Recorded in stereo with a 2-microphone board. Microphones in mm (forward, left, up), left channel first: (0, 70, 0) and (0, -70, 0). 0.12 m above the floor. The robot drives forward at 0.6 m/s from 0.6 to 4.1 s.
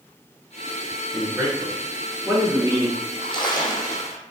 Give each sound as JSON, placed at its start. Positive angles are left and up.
{"t": 1.1, "sound": "a man speaking", "side_deg": -20, "distance_m": 1.8}
{"t": 3.0, "sound": "a splash", "side_deg": 50, "distance_m": 0.5}